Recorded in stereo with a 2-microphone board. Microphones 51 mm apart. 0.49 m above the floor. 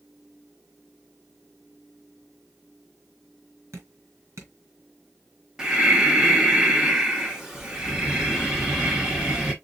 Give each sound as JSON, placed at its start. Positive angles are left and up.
{"t": 3.7, "sound": "dripping", "side_deg": -70, "distance_m": 2.5}
{"t": 5.6, "sound": "breathing", "side_deg": -10, "distance_m": 1.4}